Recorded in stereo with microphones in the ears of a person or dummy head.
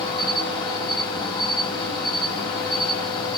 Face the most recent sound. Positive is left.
turn(degrees=5)  # may be behind; listen again after turning